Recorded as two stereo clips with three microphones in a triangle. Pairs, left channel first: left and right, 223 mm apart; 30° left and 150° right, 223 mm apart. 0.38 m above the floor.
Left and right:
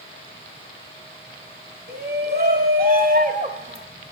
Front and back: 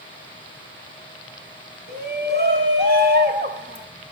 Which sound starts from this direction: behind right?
A shout, at 1.9 s.